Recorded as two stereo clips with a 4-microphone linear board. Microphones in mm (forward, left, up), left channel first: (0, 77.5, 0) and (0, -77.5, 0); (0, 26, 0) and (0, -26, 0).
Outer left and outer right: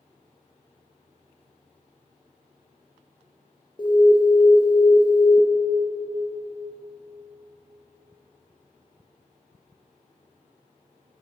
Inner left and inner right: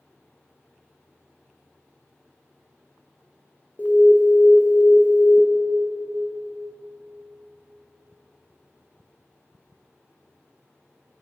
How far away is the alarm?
About 1.8 m.